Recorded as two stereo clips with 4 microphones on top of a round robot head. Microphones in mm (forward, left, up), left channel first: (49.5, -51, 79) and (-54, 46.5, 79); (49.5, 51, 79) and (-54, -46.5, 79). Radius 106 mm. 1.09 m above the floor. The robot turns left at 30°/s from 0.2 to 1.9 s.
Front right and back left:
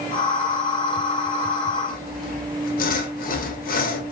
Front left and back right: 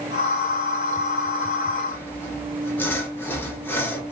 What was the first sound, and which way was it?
Sawing, 30° right.